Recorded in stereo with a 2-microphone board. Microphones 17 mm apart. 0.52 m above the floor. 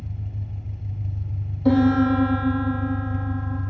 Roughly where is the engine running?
Left.